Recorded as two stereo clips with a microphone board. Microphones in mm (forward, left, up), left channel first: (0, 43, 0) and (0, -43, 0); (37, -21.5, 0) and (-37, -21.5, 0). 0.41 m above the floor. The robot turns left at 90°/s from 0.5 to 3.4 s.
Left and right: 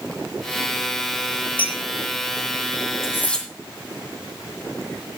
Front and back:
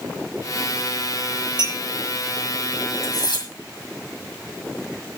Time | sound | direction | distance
1.6 | a clink | 160° left | 6 m
3.0 | cutlery clinking | 35° left | 2 m